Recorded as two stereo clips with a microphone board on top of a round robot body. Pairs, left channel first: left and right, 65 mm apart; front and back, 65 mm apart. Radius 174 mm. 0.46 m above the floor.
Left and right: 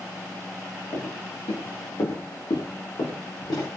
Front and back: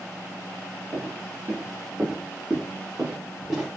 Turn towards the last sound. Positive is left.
turn(degrees=95)